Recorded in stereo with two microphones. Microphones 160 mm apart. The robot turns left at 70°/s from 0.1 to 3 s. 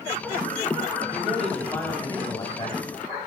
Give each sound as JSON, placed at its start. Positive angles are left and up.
{"t": 1.1, "sound": "a man speaking", "side_deg": -5, "distance_m": 1.3}